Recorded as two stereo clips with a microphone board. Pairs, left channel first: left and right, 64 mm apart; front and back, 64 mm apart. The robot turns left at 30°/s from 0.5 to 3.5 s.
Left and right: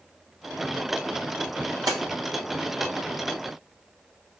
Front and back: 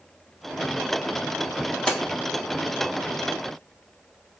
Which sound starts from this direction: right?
A splash, at 1.9 s.